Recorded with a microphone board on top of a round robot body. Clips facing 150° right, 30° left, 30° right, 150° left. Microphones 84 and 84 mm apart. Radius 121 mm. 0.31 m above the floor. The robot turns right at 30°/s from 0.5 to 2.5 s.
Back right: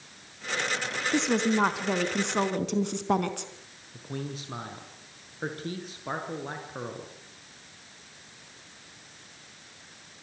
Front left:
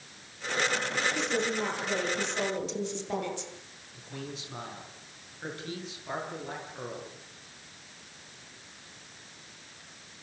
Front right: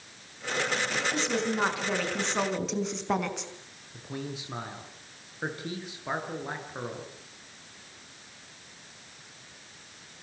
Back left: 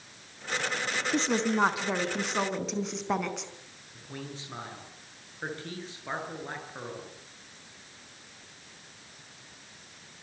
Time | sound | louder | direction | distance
1.1 | a woman speaking | back right 5 dB, back left 5 dB | 160° right | 4 m
3.9 | a man speaking | back right 4 dB, front right 4 dB | 105° right | 8.5 m